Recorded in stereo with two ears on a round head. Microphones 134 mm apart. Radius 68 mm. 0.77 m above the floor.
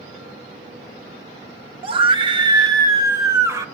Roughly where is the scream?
Right.